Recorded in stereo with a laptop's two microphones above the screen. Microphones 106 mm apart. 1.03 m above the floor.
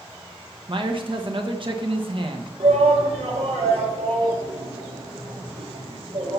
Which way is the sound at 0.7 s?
50° right (ahead or behind).